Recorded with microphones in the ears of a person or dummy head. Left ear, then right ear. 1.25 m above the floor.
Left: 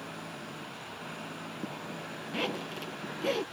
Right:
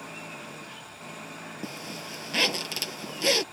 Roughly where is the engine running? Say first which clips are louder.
Right 2 dB; right.